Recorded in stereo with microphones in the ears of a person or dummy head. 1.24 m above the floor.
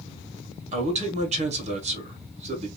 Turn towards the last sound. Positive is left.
turn(degrees=-35)  # may be behind; listen again after turning